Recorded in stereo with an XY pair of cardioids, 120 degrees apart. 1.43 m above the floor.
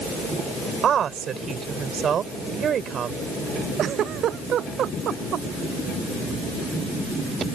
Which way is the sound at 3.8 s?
55° right.